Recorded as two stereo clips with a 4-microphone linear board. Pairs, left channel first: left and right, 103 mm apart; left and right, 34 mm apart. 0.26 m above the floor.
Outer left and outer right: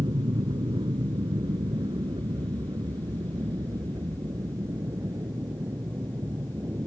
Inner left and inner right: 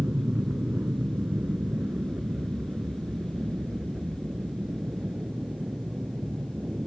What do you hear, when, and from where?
0.0 s an aircraft: 60° right (ahead or behind); by 6.9 s 25° right (ahead or behind)